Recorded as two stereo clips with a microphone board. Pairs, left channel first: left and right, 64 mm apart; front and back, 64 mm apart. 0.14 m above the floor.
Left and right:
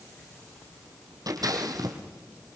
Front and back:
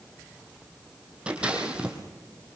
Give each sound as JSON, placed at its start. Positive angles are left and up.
{"t": 1.3, "sound": "scissors", "azimuth_deg": -105, "distance_m": 3.5}